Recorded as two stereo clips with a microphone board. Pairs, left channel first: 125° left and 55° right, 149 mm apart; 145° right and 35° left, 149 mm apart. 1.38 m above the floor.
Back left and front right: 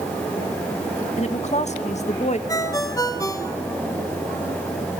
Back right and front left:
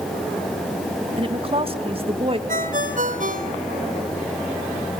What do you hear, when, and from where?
1.2 s a woman speaking: 85° left, 2 m
2.5 s a ringtone: 60° left, 3 m